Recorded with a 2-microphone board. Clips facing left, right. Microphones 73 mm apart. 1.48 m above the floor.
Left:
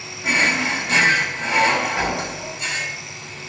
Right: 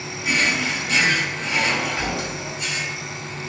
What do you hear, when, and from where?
0.2 s a drawer: 40° left (ahead or behind), 2 m